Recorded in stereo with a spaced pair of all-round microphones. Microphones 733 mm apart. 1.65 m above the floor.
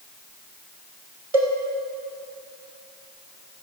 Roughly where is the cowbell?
Right.